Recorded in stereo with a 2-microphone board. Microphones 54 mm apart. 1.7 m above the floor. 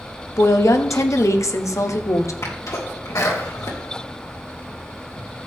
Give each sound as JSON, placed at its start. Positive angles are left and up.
{"t": 0.4, "sound": "a woman speaking", "side_deg": 75, "distance_m": 1.0}
{"t": 2.4, "sound": "a sneeze", "side_deg": 80, "distance_m": 2.0}